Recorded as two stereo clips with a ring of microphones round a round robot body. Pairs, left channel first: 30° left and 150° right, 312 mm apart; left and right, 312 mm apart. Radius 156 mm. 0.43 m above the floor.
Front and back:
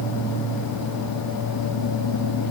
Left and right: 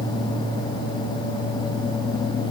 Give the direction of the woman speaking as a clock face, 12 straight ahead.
No woman speaking in this recording.